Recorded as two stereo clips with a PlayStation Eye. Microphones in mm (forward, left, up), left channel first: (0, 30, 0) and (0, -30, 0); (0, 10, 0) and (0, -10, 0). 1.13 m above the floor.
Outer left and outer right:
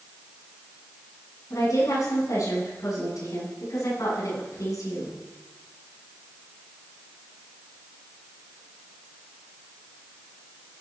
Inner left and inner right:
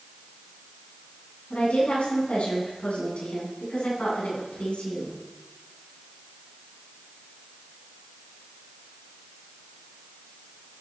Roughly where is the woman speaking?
Left.